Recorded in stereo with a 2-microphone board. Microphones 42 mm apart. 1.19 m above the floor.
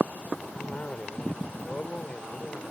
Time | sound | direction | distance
0.5 | a cough | 30° left (ahead or behind) | ?